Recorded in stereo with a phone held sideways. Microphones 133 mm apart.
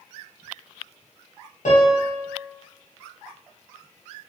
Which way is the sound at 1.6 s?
65° left (ahead or behind).